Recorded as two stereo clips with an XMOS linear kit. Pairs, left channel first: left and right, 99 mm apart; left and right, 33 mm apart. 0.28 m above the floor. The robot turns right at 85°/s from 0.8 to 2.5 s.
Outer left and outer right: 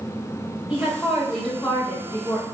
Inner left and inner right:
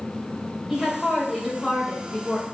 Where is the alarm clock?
No alarm clock in this recording.